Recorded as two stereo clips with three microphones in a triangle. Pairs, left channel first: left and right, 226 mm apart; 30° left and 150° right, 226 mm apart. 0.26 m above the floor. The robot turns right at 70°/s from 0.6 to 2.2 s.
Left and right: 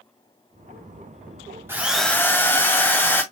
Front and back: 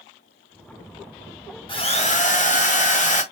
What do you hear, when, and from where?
1.7 s a drill: 20° right, 1.4 m; by 3.2 s 15° left, 1.4 m